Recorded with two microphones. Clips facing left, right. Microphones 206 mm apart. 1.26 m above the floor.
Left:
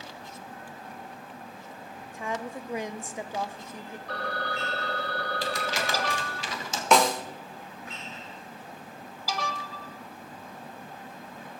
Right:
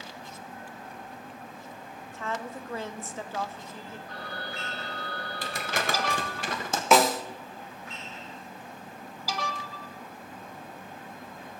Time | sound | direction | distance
2.1 | a woman speaking | 15° left (ahead or behind) | 0.7 m
4.1 | a phone ringing | 80° left | 2.5 m
5.4 | crumpling | 55° right (ahead or behind) | 1.5 m
6.9 | a snare drum | 5° right (ahead or behind) | 1.0 m